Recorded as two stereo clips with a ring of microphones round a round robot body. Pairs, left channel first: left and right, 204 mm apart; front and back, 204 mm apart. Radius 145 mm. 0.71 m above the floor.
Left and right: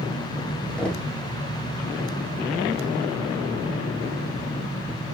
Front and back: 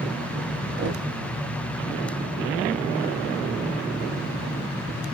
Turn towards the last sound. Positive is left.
turn(degrees=175)